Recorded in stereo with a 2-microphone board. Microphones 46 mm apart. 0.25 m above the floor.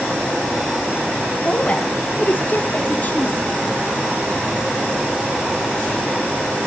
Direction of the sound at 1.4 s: 30° left (ahead or behind).